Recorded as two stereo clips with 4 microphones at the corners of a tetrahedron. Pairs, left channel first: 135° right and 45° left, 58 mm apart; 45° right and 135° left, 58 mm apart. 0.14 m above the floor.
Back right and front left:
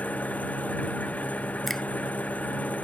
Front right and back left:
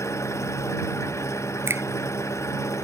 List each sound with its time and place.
0.0 s an engine running: 70° right
1.7 s a finger snap: 140° left